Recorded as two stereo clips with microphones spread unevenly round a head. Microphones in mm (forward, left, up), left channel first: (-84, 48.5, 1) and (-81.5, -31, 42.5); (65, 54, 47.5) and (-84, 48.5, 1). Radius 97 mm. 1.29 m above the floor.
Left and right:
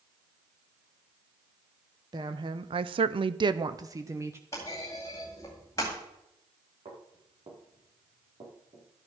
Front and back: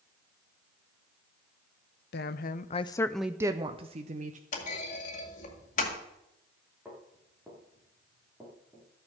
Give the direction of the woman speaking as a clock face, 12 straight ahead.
1 o'clock.